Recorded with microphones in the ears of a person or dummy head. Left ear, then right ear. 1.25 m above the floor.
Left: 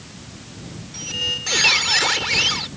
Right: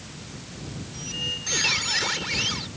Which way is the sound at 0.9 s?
35° left (ahead or behind).